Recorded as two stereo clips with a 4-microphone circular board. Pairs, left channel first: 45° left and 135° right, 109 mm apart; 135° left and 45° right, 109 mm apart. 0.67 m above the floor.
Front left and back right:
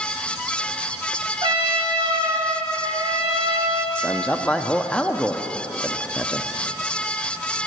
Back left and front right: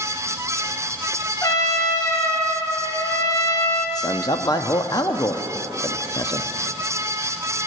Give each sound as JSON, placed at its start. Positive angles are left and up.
{"t": 1.4, "sound": "a trumpet", "azimuth_deg": -170, "distance_m": 1.3}
{"t": 4.0, "sound": "a man speaking", "azimuth_deg": 120, "distance_m": 0.6}